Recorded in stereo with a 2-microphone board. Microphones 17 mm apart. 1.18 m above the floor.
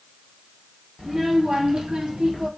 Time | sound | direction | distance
1.0 | a child speaking | 40° right (ahead or behind) | 1.6 m